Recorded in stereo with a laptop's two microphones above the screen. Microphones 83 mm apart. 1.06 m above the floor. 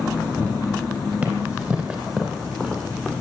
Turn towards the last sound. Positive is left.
turn(degrees=-5)  # may be behind; listen again after turning